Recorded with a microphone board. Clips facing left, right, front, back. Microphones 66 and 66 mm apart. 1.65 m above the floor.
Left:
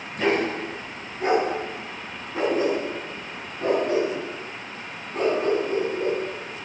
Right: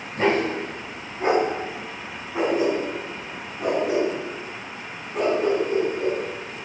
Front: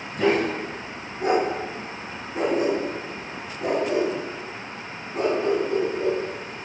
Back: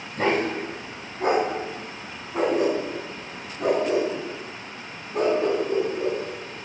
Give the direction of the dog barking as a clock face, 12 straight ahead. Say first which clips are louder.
Right 2 dB, front 2 dB; 5 o'clock.